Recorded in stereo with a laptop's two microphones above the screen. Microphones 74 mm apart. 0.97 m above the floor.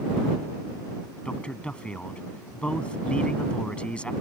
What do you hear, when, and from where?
1.2 s a man speaking: 15° left (ahead or behind)